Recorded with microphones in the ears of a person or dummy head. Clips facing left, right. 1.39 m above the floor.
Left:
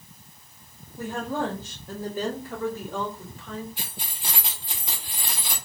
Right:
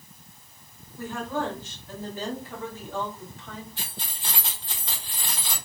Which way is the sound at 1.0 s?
15° left (ahead or behind).